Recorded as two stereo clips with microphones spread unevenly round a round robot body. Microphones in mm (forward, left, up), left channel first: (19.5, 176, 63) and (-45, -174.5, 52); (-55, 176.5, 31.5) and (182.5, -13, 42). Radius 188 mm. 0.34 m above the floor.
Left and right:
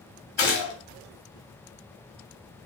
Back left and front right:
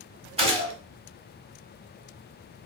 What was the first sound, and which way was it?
A gunshot, 35° left.